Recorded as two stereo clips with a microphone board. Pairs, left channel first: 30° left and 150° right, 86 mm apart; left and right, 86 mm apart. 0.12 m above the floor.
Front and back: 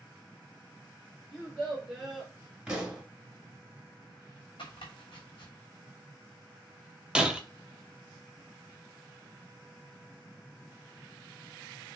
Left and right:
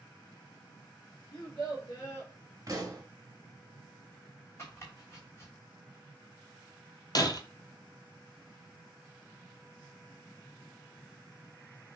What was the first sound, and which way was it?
A child speaking, 120° left.